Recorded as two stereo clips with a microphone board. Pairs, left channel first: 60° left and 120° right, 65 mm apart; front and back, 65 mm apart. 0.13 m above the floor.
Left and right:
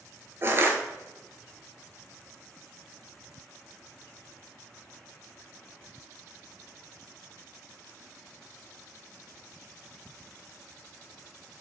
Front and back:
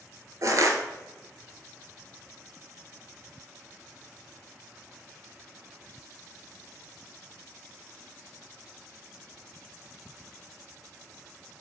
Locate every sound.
0.4 s crushing: 165° right, 0.7 m